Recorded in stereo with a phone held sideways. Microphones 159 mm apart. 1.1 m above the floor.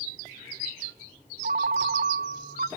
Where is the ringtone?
65° right (ahead or behind), 0.5 m.